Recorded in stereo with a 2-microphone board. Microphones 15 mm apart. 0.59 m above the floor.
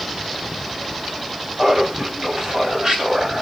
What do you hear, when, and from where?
1.6 s laughter: 45° right (ahead or behind), 3 m; by 3.4 s 65° right (ahead or behind), 3.5 m